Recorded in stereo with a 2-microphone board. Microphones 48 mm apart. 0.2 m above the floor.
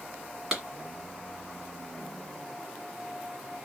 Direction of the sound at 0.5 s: 10° right (ahead or behind).